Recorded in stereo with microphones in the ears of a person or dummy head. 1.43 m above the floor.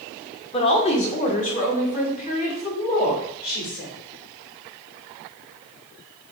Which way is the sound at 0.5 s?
30° left (ahead or behind).